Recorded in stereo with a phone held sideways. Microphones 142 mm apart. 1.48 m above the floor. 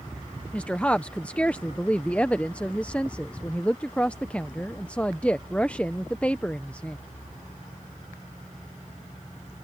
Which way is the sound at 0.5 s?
10° left (ahead or behind).